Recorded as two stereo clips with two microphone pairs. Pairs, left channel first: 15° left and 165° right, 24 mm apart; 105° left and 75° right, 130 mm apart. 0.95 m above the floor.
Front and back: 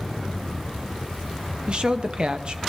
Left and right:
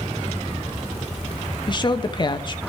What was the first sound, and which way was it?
A woman speaking, 150° left.